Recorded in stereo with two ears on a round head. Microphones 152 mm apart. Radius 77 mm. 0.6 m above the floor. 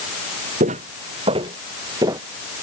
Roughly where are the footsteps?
Right.